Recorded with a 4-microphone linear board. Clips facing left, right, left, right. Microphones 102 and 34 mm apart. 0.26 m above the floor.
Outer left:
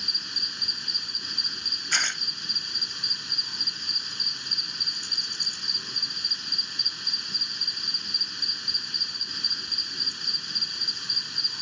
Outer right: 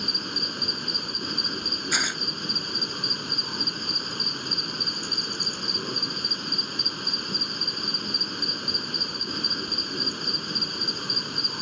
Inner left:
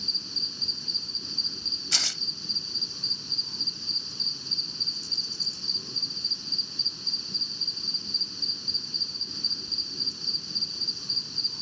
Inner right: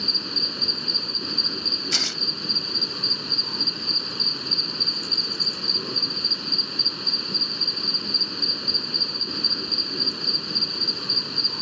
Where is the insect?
55° right (ahead or behind).